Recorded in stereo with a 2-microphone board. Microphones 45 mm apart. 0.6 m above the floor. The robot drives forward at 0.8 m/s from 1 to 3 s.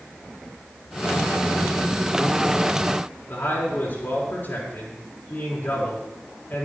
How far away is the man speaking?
About 6 m.